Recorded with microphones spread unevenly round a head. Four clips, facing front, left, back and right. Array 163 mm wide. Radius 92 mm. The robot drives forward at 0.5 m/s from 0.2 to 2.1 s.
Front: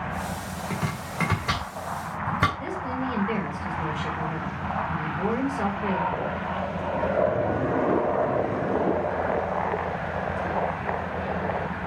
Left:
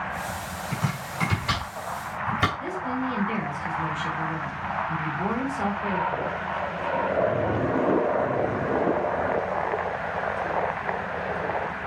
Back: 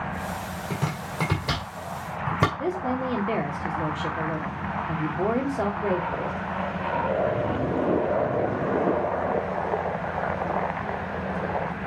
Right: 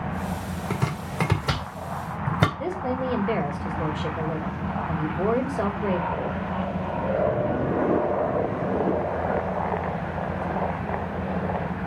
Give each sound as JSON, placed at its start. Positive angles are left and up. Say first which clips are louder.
{"t": 0.7, "sound": "chopping", "louder": "right 2 dB, back 1 dB", "azimuth_deg": -105, "distance_m": 2.0}
{"t": 2.6, "sound": "a woman speaking", "louder": "right 2 dB, back 3 dB", "azimuth_deg": -135, "distance_m": 2.5}